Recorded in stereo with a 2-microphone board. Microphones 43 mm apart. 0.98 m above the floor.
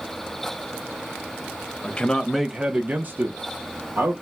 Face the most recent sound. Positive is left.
turn(degrees=-65)  # may be behind; listen again after turning